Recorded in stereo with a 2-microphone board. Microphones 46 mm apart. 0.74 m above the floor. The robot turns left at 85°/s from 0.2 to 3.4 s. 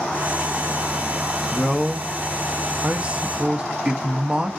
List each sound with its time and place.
1.5 s a man speaking: 15° left (ahead or behind), 0.5 m; by 4.5 s 20° right (ahead or behind), 0.5 m